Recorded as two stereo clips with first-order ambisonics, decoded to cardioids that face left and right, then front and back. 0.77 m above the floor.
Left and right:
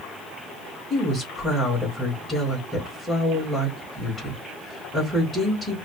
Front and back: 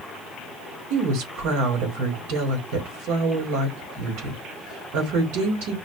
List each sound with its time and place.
0.9 s a woman speaking: 175° left, 2 m